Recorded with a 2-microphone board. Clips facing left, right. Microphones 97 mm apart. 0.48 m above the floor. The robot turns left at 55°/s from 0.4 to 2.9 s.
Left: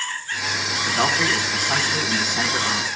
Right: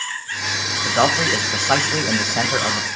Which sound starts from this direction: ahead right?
A man speaking, at 0.8 s.